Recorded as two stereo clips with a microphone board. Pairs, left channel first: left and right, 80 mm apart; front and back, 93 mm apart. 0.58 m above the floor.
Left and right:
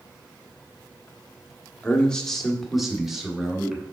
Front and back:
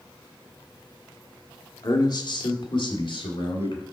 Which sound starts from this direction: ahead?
A man speaking, at 1.8 s.